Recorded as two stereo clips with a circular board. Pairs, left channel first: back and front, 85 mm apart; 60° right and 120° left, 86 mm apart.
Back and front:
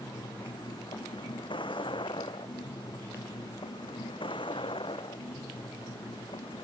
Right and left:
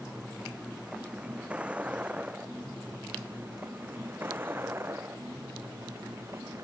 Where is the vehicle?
155° right; by 6.7 s straight behind.